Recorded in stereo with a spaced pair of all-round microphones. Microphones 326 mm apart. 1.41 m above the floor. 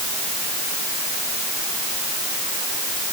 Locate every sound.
Only background noise.